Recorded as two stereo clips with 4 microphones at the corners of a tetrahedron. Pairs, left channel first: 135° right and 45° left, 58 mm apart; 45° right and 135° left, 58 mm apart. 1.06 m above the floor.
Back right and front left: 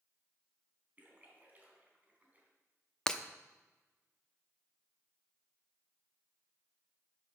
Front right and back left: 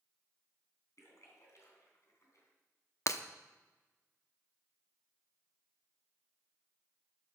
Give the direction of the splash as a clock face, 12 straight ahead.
12 o'clock.